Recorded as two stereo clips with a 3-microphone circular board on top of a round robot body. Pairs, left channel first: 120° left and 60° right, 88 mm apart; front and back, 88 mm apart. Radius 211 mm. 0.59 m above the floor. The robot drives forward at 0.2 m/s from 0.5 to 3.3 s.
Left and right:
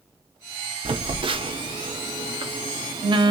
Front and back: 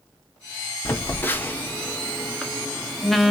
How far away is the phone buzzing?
About 1.1 m.